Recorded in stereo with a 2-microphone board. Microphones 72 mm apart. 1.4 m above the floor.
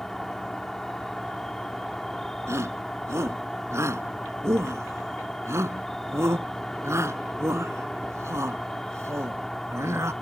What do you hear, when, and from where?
0.0 s an insect: 5° left (ahead or behind)
2.5 s a shout: 40° right (ahead or behind)